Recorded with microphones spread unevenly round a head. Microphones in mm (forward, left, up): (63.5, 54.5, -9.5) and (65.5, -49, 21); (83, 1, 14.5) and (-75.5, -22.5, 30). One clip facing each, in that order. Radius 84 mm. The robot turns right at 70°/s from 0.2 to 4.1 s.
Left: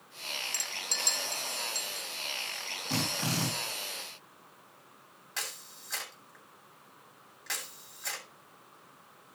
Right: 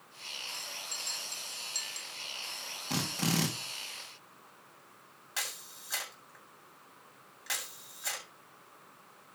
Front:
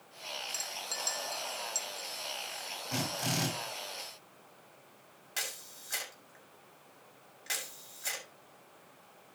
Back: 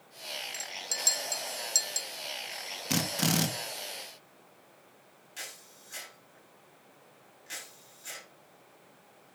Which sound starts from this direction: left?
A clink, at 0.5 s.